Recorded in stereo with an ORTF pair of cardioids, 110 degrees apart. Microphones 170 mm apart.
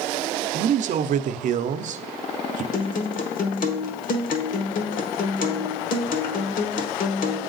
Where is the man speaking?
45° right, 0.6 m.